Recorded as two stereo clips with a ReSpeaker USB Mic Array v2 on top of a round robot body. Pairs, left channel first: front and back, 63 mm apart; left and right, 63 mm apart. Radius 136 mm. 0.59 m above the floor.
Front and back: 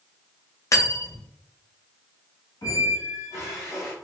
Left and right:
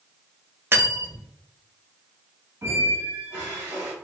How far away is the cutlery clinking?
About 0.8 m.